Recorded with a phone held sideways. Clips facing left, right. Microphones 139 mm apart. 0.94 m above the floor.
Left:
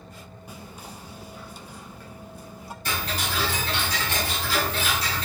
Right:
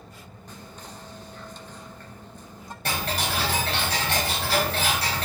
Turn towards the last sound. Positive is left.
turn(degrees=-70)  # may be behind; listen again after turning